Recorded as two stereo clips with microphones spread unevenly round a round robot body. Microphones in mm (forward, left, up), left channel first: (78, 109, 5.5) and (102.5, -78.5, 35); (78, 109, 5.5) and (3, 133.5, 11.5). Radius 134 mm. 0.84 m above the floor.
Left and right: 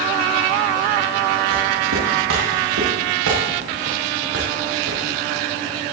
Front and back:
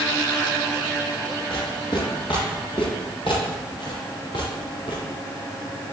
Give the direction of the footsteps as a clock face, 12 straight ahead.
3 o'clock.